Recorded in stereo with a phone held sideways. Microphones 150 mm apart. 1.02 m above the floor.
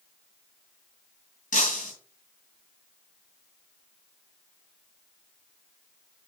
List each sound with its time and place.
1.5 s breaking glass: 80° left, 4.5 m